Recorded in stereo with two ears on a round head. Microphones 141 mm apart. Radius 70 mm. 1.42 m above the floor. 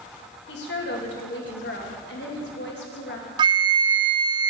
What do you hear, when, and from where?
0.5 s a woman speaking: 80° left, 1.7 m
3.4 s a flute: 30° right (ahead or behind), 0.5 m